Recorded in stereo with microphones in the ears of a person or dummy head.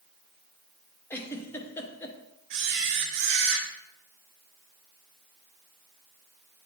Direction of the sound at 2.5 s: 55° right (ahead or behind).